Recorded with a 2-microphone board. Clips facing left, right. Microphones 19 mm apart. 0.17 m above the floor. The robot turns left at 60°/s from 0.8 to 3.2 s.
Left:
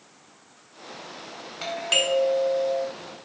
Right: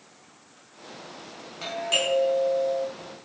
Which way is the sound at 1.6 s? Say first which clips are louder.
Left 2 dB; 140° left.